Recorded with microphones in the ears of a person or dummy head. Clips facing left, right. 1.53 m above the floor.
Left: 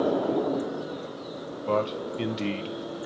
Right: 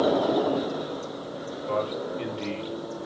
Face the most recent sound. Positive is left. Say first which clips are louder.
# left 2 dB
turn(degrees=60)  # may be behind; listen again after turning